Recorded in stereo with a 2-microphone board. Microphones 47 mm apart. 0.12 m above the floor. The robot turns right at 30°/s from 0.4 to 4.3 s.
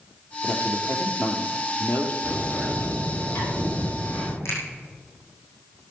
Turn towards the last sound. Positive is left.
turn(degrees=75)  # may be behind; listen again after turning